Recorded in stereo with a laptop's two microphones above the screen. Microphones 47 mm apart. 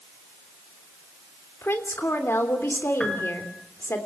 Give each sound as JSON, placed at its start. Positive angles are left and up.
{"t": 1.6, "sound": "a woman speaking", "side_deg": 55, "distance_m": 3.0}
{"t": 3.0, "sound": "a piano", "side_deg": 20, "distance_m": 6.0}